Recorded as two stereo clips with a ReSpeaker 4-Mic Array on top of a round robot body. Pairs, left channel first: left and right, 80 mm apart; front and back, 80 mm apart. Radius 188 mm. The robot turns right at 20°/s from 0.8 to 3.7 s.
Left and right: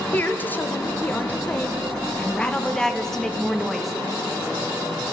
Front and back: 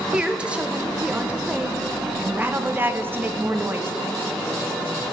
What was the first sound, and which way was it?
A woman speaking, 120° left.